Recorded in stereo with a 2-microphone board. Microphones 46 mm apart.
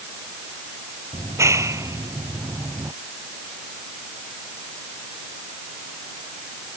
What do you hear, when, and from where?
1.1 s a clap: 80° right